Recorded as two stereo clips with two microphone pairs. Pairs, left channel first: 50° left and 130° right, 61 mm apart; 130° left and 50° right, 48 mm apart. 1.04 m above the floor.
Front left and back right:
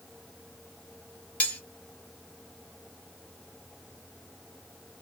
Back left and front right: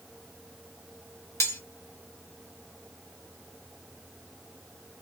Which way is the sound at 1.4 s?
120° left.